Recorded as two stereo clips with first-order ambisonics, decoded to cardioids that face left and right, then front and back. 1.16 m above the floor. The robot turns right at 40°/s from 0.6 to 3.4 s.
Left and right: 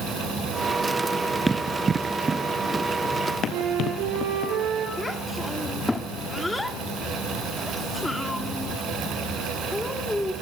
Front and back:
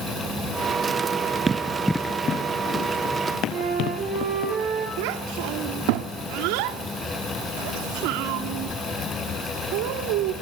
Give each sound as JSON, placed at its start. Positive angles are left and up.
{"t": 1.5, "sound": "running footsteps", "azimuth_deg": -150, "distance_m": 1.1}
{"t": 3.5, "sound": "a flute", "azimuth_deg": -130, "distance_m": 8.0}
{"t": 5.0, "sound": "a child speaking", "azimuth_deg": 175, "distance_m": 2.0}